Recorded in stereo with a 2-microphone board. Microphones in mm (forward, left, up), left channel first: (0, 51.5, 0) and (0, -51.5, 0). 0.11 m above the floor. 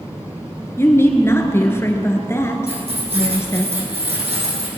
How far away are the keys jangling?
About 4 m.